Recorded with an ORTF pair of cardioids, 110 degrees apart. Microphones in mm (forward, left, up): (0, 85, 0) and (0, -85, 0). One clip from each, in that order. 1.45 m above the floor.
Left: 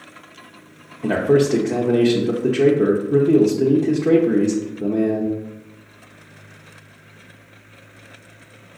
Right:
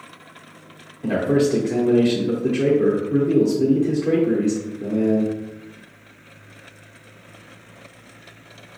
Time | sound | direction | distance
1.0 | a man speaking | 25° left | 0.6 m